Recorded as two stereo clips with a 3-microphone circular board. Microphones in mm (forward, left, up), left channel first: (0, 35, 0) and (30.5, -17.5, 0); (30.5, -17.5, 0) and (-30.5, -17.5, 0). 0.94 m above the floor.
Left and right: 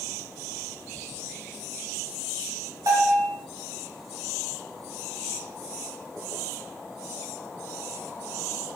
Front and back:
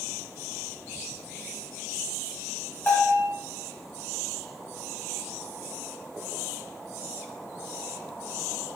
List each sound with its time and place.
2.9 s a bell: 55° right, 3 m